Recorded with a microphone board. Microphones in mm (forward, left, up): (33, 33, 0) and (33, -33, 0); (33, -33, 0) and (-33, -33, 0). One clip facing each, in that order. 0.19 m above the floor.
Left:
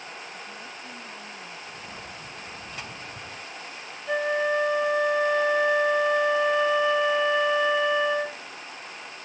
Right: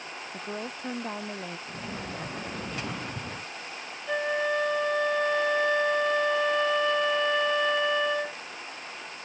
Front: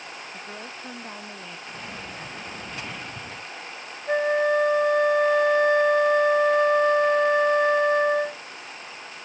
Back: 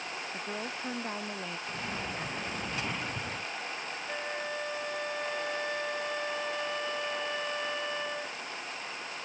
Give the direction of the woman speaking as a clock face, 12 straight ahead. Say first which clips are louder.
Right 4 dB, back 1 dB; 3 o'clock.